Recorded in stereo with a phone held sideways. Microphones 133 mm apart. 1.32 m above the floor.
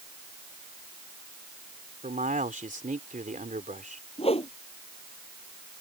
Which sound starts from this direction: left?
A whoosh, at 4.2 s.